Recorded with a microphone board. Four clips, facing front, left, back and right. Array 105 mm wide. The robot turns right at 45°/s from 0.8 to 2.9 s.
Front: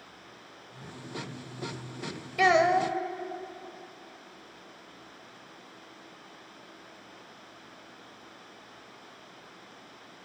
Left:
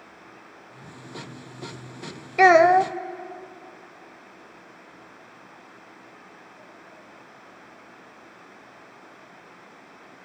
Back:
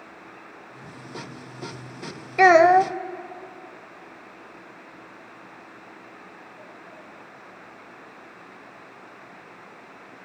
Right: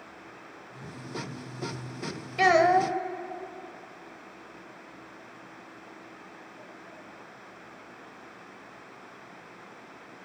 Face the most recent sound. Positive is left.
turn(degrees=155)